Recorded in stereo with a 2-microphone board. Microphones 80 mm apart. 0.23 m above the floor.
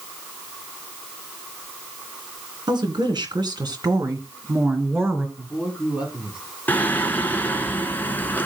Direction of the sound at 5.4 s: 15° right (ahead or behind).